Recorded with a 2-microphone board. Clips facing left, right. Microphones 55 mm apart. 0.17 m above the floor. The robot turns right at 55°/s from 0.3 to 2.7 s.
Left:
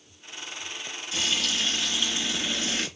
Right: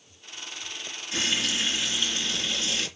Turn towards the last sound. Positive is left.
turn(degrees=45)